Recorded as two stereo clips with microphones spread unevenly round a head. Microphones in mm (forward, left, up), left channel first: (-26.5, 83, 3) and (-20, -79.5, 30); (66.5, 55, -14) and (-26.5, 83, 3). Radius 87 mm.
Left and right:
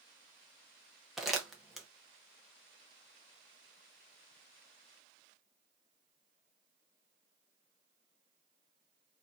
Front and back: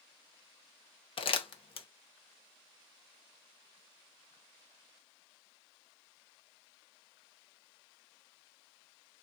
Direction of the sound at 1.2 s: 10° right.